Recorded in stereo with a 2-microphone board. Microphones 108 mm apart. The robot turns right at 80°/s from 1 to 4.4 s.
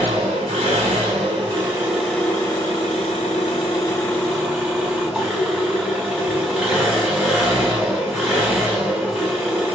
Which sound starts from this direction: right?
An engine running, at 0.0 s.